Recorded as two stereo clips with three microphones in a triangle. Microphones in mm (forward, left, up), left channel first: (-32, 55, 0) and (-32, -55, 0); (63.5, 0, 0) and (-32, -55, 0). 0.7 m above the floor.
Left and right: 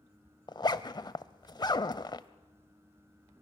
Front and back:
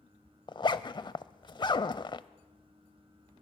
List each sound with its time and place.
0.5 s a zipper: 55° left, 0.6 m